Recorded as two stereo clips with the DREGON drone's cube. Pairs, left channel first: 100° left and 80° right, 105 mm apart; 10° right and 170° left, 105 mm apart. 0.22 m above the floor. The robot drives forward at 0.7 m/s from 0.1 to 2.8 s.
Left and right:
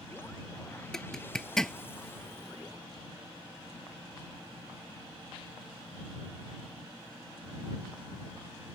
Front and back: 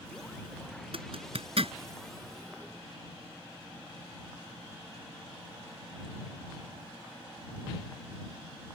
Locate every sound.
0.9 s a zipper: 175° right